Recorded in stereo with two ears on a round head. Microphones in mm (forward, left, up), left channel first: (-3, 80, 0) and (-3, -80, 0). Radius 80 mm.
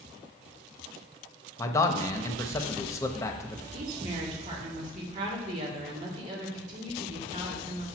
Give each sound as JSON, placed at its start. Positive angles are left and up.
{"t": 1.6, "sound": "a man speaking", "side_deg": 15, "distance_m": 0.7}
{"t": 3.7, "sound": "a woman speaking", "side_deg": -40, "distance_m": 2.0}